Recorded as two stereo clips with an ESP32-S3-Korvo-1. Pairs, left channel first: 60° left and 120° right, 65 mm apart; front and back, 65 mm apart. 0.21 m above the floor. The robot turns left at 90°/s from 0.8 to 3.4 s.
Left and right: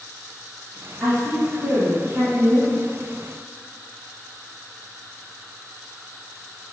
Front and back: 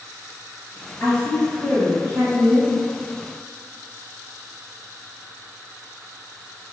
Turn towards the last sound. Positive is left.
turn(degrees=110)